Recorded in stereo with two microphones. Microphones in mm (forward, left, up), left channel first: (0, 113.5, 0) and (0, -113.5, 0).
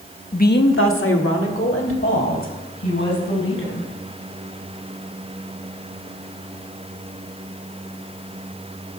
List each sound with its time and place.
0.3 s a woman speaking: 35° left (ahead or behind), 0.8 m; by 3.9 s 65° left (ahead or behind), 5 m